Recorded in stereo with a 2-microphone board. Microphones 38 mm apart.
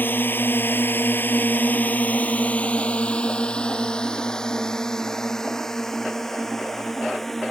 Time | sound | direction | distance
0.0 | a drone | 60° left (ahead or behind) | ?